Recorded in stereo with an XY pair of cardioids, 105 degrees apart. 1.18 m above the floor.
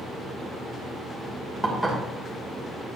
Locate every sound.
1.6 s dishes clattering: straight ahead, 2.5 m